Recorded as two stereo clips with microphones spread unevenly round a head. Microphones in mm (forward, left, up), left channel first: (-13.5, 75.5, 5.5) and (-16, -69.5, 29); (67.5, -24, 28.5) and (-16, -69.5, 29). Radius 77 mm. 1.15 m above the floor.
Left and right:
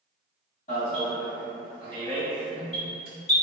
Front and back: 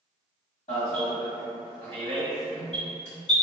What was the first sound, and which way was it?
An alarm, 45° left.